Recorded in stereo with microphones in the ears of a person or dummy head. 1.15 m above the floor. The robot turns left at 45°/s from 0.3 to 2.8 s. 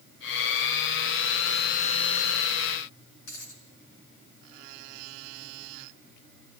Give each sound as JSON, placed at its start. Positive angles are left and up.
{"t": 3.3, "sound": "a dropped coin", "side_deg": 80, "distance_m": 5.5}